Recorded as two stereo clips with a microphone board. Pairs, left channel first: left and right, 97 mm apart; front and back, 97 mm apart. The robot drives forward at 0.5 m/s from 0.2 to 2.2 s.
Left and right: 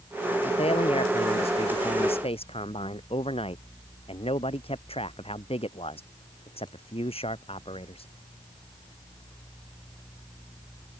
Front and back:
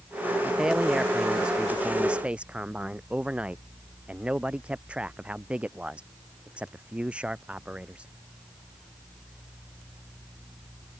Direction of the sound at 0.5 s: 95° left.